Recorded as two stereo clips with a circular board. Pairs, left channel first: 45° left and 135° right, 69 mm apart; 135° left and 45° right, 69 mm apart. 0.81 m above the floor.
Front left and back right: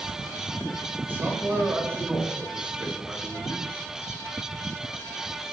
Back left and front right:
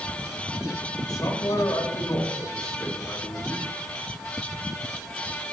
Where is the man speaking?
165° left, 4.5 m; by 3.7 s 145° left, 5 m.